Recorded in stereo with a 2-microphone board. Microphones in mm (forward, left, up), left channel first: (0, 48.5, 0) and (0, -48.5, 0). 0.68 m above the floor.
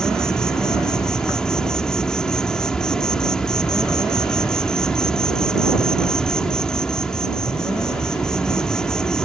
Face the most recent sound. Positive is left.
turn(degrees=5)  # may be behind; listen again after turning